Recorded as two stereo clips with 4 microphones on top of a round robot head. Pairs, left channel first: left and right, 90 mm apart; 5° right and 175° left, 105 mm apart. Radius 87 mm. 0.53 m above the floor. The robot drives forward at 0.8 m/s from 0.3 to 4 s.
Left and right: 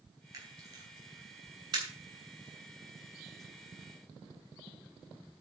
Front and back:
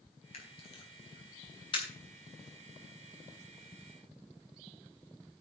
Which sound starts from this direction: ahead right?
A camera shutter, at 0.3 s.